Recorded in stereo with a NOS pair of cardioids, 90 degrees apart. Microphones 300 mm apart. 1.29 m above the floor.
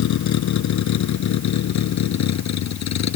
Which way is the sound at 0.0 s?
65° left.